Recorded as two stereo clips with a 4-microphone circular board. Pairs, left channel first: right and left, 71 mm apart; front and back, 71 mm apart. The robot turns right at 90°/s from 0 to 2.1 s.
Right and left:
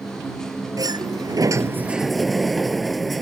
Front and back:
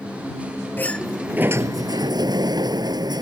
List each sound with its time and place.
0.8 s a sliding door: 60° left; by 3.2 s straight behind